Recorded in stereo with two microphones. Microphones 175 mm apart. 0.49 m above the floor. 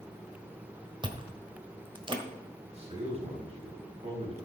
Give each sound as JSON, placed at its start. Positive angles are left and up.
{"t": 1.0, "sound": "chewing", "side_deg": -25, "distance_m": 1.3}
{"t": 2.7, "sound": "a man speaking", "side_deg": -35, "distance_m": 3.5}